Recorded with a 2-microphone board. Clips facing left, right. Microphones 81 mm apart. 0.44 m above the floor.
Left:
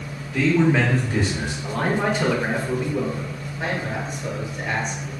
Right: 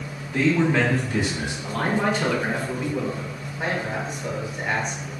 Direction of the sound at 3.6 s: 20° right (ahead or behind).